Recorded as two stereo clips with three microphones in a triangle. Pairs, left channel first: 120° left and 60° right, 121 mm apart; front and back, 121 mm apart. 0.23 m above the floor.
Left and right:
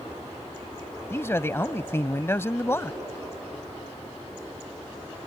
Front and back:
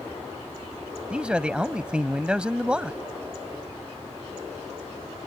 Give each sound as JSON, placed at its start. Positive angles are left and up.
{"t": 1.1, "sound": "a man speaking", "azimuth_deg": 115}